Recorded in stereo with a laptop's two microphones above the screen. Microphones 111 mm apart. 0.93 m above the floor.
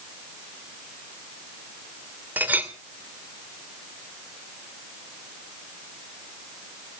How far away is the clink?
About 2.5 m.